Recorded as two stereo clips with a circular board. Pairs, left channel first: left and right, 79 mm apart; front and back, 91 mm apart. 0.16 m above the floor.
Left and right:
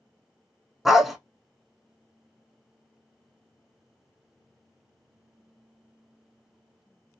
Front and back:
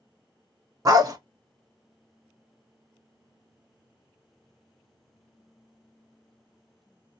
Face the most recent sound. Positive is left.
turn(degrees=-175)